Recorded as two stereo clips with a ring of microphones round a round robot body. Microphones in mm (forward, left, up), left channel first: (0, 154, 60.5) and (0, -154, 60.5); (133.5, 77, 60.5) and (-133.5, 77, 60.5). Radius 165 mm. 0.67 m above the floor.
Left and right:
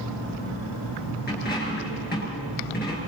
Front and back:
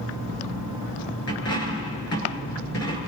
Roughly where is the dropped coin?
Ahead left.